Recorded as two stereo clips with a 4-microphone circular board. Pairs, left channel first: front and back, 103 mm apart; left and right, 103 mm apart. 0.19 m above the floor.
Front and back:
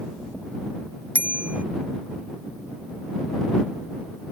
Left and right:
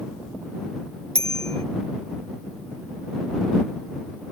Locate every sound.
1.1 s a bicycle bell: 105° right